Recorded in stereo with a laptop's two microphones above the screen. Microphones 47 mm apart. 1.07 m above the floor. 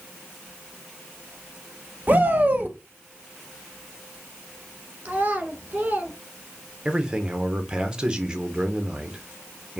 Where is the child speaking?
35° right (ahead or behind), 1.3 m.